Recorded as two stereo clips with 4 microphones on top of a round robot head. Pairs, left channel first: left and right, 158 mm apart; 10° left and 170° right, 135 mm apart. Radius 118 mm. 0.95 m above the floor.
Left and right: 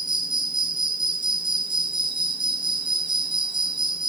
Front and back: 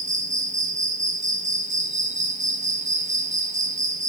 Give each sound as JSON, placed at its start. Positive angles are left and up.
{"t": 0.0, "sound": "an insect", "azimuth_deg": -150, "distance_m": 1.1}